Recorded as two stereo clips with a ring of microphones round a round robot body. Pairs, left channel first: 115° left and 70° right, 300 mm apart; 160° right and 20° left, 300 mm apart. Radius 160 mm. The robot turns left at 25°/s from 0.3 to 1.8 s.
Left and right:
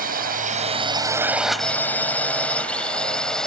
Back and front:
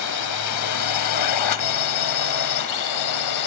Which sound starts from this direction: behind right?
A drone, at 0.0 s.